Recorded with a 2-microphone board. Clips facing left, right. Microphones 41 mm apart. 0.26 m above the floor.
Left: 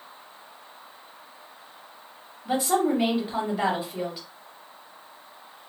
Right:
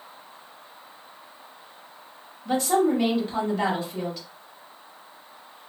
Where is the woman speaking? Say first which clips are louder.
Right 2 dB; 15° left (ahead or behind), 0.9 m.